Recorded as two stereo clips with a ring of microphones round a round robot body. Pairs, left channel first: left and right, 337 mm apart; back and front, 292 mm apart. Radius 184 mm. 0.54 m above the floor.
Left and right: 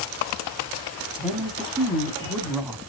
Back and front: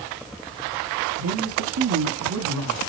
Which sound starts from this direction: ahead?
A woman speaking, at 1.2 s.